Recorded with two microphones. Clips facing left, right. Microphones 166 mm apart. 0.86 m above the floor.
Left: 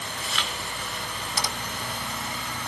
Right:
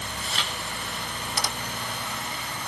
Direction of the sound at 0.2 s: 35° right (ahead or behind).